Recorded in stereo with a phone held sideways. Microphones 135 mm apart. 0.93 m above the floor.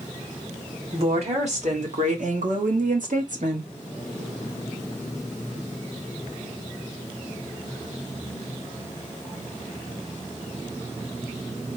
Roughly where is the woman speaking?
Right.